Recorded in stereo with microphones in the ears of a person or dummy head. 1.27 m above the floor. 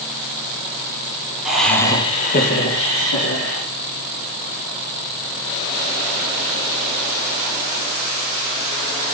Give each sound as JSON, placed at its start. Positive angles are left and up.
{"t": 1.4, "sound": "laughter", "side_deg": -5, "distance_m": 0.6}